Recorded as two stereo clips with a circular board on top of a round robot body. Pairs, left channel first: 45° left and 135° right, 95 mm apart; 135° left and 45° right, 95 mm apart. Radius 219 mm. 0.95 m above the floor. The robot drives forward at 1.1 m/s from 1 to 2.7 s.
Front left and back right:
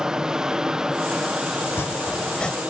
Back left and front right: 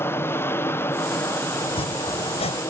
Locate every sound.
0.0 s an aircraft: 150° left; by 2.7 s 155° left
1.6 s chopping: 110° left; by 2.6 s 130° left